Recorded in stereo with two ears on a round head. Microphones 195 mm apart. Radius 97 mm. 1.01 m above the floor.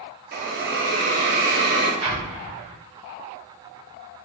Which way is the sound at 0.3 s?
45° right (ahead or behind).